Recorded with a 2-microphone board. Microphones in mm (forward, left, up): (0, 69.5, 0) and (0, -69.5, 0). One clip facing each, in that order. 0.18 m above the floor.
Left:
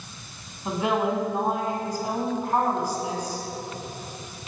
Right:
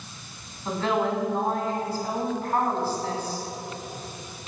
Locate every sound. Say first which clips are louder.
0.7 s a woman speaking: left 1 dB; 15° left (ahead or behind), 1.7 m